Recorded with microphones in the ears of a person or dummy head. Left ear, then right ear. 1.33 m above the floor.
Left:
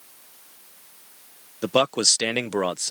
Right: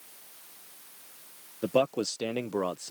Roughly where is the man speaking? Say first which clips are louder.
Left 6 dB; left.